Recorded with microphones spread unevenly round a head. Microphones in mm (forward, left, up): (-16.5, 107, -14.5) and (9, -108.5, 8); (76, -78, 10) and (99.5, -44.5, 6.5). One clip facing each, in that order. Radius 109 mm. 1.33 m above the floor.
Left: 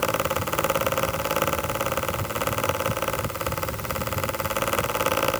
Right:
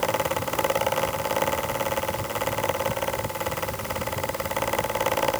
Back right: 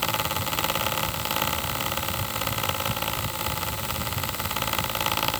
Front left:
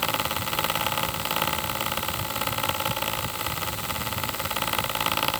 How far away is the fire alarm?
I don't hear a fire alarm.